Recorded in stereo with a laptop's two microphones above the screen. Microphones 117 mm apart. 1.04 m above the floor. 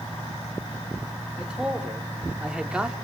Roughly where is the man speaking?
Centre.